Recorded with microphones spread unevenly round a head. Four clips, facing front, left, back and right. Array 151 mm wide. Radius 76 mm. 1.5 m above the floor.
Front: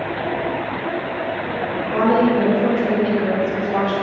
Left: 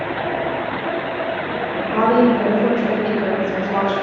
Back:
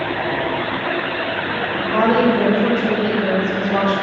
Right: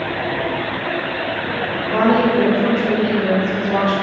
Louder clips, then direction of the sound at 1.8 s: Left 1 dB, back 1 dB; 90° right.